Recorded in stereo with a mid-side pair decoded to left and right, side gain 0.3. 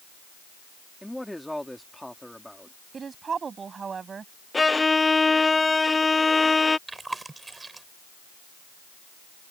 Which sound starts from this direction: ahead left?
A violin, at 4.5 s.